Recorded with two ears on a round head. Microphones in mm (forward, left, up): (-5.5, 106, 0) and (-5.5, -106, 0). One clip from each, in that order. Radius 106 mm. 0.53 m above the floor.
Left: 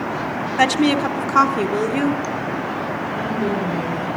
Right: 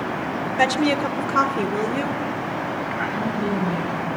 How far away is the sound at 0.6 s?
About 0.8 m.